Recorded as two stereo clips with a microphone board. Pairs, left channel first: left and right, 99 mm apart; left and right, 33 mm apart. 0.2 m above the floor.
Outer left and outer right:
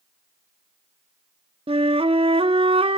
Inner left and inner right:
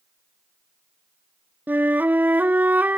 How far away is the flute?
About 0.6 m.